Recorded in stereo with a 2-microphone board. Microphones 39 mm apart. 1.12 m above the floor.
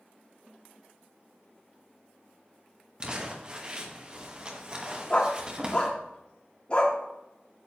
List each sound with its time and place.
3.0 s crumpling: 25° right (ahead or behind), 1.1 m
5.1 s a dog barking: 30° left (ahead or behind), 1.0 m